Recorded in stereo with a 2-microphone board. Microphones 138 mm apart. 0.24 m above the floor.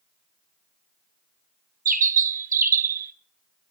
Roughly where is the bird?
Right.